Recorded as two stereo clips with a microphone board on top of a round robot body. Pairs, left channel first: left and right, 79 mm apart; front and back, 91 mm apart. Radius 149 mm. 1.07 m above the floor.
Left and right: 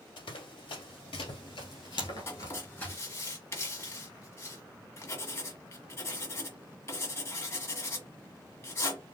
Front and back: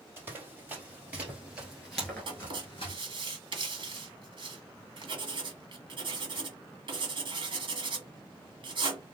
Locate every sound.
0.2 s running footsteps: 115° left, 2 m; by 3.0 s 10° left, 1.1 m
2.3 s writing: 145° left, 1.8 m